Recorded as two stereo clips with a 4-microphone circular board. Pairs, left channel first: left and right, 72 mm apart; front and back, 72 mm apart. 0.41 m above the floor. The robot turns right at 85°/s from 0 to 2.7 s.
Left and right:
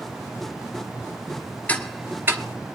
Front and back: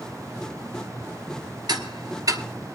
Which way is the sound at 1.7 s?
160° left.